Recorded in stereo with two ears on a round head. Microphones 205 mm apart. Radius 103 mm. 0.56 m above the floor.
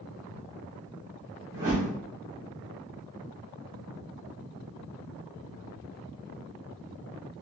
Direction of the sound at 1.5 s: 15° right (ahead or behind).